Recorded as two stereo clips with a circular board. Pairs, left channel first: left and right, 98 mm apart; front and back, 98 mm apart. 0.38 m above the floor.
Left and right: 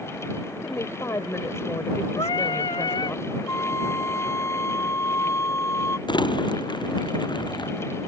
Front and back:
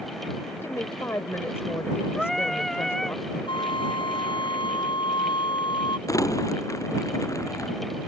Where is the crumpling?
55° left.